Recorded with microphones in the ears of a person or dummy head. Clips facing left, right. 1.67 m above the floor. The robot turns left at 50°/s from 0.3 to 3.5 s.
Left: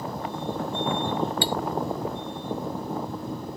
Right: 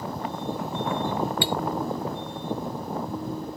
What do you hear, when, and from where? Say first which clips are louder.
1.4 s cutlery clinking: even; 40° left (ahead or behind); by 1.6 s 35° left (ahead or behind)